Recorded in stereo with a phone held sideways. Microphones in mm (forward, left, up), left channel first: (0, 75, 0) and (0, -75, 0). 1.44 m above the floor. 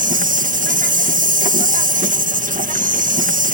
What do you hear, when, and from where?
0.0 s an insect: 65° right (ahead or behind)